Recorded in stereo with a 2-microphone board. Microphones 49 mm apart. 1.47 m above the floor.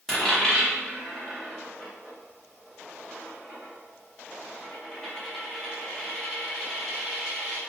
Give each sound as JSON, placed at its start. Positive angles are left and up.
{"t": 0.1, "sound": "a dropped coin", "side_deg": 10, "distance_m": 1.0}